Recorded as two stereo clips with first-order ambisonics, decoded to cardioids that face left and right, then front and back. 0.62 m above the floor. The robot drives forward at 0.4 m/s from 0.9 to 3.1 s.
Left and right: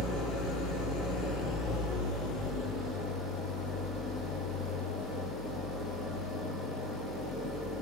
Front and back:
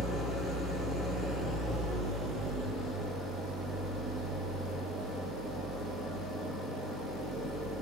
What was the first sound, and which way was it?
An engine running, 115° left.